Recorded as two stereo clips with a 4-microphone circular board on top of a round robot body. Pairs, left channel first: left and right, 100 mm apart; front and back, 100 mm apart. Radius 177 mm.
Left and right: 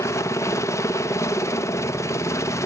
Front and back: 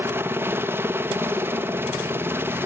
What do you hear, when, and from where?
0.0 s a helicopter: 125° left